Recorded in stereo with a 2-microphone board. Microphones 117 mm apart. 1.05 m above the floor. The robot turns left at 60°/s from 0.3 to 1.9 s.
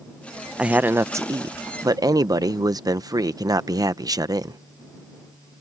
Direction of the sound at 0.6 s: 15° right.